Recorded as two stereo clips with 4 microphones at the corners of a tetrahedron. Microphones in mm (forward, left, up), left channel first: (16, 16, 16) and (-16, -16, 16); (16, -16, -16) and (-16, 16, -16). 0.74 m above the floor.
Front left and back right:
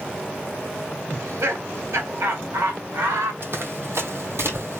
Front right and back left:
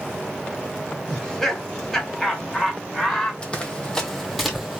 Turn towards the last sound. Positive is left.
turn(degrees=-145)